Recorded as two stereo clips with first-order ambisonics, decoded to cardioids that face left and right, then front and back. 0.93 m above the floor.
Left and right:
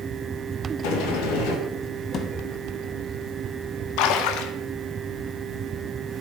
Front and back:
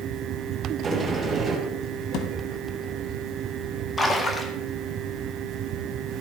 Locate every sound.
0.8 s a sliding door: 105° left, 3 m
2.1 s a thud: 35° left, 1.4 m
4.0 s a splash: 80° left, 1.6 m